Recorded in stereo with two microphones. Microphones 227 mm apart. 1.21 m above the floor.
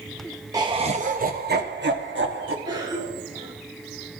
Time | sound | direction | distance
0.5 | laughter | 15° right (ahead or behind) | 0.7 m
2.6 | a cough | 20° right (ahead or behind) | 3 m